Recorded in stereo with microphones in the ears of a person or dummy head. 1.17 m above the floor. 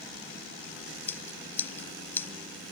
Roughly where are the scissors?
Centre.